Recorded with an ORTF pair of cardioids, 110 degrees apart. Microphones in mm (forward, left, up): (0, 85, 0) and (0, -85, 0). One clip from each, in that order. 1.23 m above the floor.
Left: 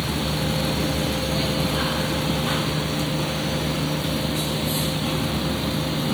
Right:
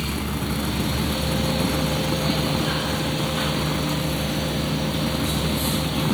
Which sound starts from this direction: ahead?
A fan, at 0.0 s.